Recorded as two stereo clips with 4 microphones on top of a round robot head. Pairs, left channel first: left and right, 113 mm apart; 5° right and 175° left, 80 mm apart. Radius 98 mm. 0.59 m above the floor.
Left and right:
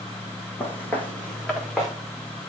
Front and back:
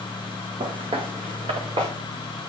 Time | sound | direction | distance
0.6 | footsteps | 160° left | 2.0 m